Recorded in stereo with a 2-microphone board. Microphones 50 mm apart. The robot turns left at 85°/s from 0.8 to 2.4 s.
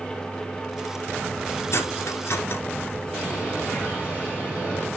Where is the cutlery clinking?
65° left (ahead or behind), 1.9 m; by 2.6 s 50° left (ahead or behind), 1.9 m.